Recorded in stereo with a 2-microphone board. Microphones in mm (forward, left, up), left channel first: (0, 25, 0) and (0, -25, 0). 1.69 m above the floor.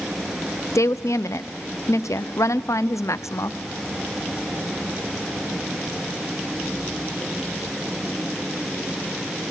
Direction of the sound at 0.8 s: 80° left.